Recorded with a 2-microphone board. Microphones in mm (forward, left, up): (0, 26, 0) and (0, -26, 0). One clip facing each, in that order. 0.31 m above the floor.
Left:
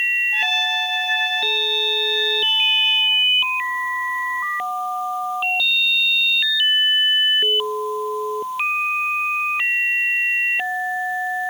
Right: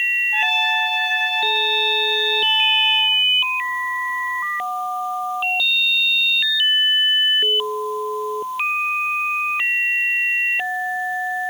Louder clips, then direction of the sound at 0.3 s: Right 2 dB; 15° right (ahead or behind).